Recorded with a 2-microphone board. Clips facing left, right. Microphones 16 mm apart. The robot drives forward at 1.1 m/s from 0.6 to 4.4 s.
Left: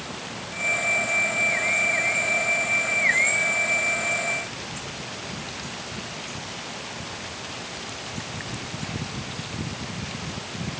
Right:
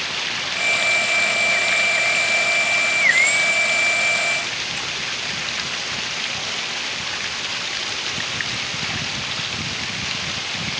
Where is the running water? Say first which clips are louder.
Right 11 dB; 55° right (ahead or behind); by 10.8 s 50° right (ahead or behind).